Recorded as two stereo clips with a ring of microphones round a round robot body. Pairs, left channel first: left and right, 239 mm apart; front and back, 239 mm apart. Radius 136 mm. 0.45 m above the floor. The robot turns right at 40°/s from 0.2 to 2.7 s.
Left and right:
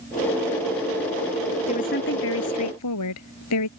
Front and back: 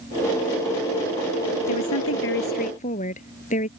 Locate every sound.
1.7 s a woman speaking: 25° left; by 3.7 s 65° left